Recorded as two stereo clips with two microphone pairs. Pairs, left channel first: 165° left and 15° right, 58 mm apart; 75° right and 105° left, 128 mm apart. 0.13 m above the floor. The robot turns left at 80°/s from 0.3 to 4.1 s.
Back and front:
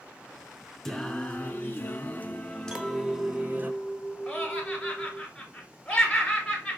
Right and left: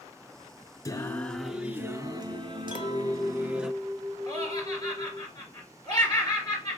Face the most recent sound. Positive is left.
turn(degrees=-115)